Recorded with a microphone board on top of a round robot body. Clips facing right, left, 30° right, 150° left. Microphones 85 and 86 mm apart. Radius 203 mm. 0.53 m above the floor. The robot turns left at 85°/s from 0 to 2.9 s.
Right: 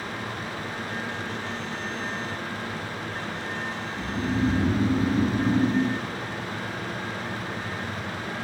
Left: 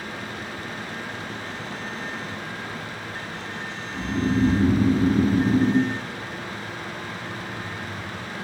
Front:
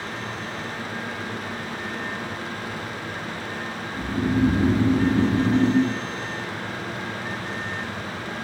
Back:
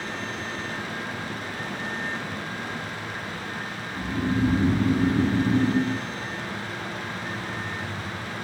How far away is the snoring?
About 0.8 m.